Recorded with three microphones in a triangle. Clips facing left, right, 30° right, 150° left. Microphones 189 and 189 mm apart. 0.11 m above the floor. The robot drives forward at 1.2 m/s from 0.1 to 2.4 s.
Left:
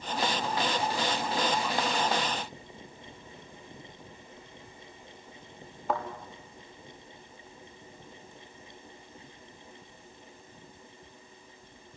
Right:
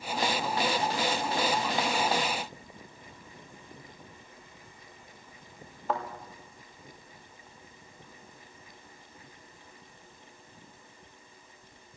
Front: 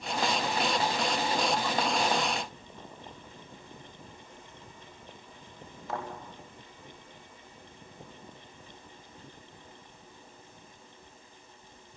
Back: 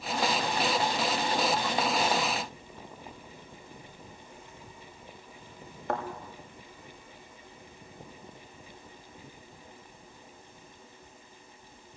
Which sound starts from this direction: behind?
A thud, at 5.9 s.